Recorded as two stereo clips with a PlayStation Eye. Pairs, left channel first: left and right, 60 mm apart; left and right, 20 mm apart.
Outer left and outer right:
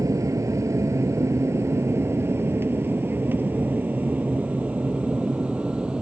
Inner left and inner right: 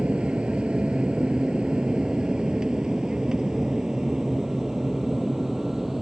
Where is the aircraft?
65° right (ahead or behind); by 6.0 s 15° right (ahead or behind).